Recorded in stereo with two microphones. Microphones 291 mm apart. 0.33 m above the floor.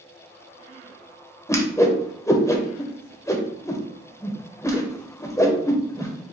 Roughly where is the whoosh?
Centre.